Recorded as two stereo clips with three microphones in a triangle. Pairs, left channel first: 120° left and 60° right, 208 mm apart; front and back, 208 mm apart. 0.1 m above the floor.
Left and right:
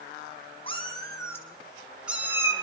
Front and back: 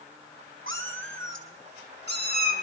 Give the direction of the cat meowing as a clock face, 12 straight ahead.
6 o'clock.